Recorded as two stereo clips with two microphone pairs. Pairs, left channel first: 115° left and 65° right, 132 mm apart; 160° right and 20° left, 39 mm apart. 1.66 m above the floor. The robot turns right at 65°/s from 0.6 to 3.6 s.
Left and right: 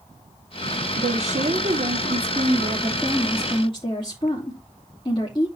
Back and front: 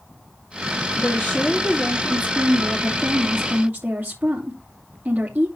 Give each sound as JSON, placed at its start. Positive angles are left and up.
{"t": 1.0, "sound": "a woman speaking", "azimuth_deg": -110, "distance_m": 3.0}